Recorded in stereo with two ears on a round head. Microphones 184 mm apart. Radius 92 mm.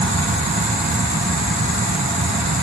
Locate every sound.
Only background noise.